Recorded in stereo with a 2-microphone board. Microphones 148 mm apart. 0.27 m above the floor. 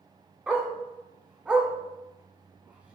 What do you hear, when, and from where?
0.5 s a dog barking: 10° right (ahead or behind), 0.7 m